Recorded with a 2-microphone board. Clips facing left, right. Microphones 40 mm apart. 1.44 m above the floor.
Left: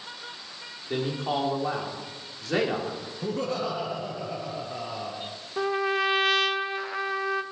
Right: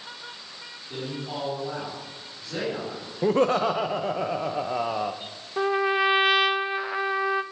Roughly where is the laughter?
Right.